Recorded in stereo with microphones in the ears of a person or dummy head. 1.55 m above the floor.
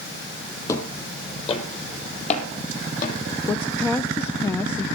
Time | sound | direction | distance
0.7 | footsteps | 20° left (ahead or behind) | 3 m
3.5 | a woman speaking | 15° left (ahead or behind) | 0.9 m